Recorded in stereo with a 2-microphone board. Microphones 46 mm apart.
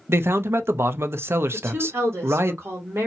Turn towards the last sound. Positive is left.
turn(degrees=-70)  # may be behind; listen again after turning